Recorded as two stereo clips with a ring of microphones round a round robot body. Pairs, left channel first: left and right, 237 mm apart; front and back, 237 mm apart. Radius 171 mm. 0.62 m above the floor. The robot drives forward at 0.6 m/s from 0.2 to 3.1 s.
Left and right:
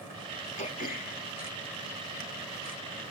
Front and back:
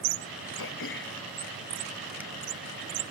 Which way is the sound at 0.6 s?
30° left.